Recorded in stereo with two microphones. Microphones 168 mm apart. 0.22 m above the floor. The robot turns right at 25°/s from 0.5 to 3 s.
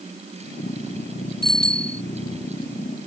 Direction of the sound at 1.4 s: 65° right (ahead or behind).